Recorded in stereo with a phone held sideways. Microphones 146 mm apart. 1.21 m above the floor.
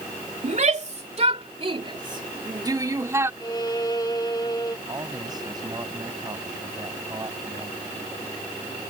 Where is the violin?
25° left (ahead or behind).